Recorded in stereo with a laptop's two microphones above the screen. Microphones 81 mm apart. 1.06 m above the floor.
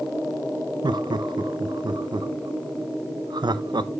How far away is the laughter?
About 0.6 m.